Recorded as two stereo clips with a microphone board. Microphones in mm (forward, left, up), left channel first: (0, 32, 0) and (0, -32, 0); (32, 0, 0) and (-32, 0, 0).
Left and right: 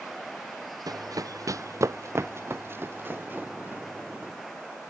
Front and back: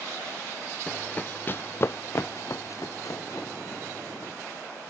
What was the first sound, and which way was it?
Running footsteps, 75° right.